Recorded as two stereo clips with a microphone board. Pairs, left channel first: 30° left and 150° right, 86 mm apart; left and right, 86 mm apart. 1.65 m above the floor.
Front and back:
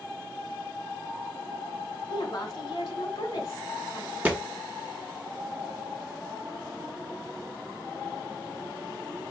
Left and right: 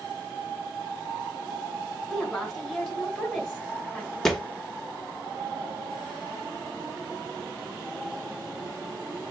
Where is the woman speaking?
Straight ahead, 1.9 m.